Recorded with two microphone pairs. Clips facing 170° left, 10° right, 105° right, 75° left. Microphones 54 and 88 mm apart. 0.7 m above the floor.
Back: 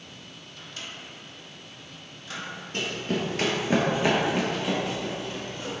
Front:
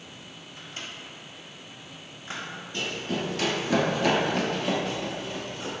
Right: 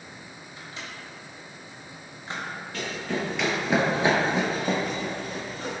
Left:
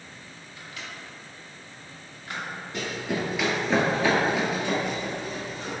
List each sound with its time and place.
0.6 s a microwave: 60° right, 0.6 m
2.7 s running footsteps: 140° left, 0.9 m; by 5.8 s 85° right, 1.2 m